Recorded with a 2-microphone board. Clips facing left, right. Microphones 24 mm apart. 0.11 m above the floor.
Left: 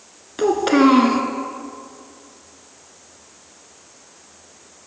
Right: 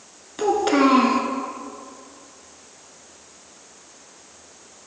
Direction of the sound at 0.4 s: 15° left (ahead or behind).